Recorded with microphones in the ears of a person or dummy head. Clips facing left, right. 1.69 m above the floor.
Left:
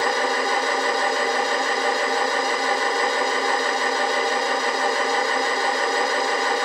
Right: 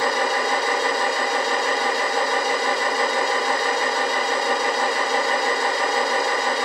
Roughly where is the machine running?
Right.